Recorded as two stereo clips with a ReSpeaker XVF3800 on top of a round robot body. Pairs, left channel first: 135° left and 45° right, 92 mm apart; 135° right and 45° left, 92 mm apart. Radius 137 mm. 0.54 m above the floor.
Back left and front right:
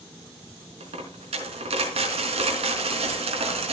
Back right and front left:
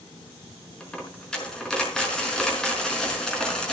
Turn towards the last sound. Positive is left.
turn(degrees=-55)